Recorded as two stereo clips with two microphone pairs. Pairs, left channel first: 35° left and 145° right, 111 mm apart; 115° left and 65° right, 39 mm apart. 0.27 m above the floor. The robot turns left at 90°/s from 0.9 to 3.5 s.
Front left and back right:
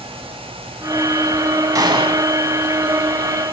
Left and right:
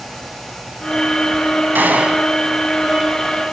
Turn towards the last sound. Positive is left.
turn(degrees=115)